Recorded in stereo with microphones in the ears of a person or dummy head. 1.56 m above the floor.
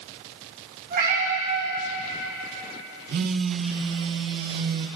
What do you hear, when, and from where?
0.9 s a cat meowing: 50° right (ahead or behind), 5 m
3.1 s a phone buzzing: 60° right (ahead or behind), 1.3 m